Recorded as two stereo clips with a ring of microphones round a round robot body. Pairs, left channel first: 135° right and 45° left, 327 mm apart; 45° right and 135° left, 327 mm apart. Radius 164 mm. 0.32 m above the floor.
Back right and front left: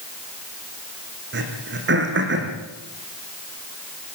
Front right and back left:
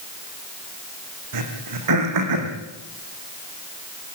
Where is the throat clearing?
105° left, 5 m.